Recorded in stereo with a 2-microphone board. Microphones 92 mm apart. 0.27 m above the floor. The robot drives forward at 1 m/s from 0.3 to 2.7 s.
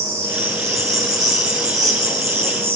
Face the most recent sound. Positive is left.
turn(degrees=-30)  # may be behind; listen again after turning